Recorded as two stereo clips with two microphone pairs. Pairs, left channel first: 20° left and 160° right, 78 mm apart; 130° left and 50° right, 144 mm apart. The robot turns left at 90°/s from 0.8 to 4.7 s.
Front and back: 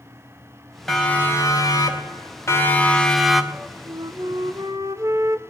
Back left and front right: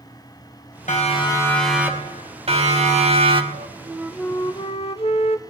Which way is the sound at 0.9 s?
105° left.